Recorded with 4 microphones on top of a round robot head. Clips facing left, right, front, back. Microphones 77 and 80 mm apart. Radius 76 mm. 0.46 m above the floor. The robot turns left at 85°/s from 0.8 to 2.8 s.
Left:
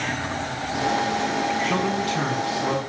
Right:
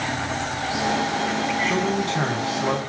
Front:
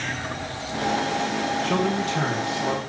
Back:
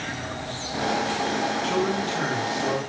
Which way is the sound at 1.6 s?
5° left.